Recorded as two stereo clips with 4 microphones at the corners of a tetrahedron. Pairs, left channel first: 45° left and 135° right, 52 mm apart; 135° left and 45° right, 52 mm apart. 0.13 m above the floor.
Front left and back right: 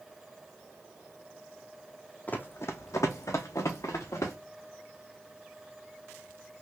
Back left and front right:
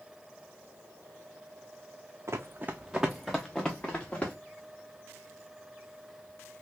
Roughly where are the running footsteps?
Ahead.